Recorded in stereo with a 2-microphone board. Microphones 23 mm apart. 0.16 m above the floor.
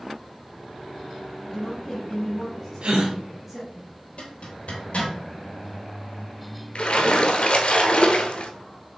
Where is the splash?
60° left (ahead or behind), 0.8 m.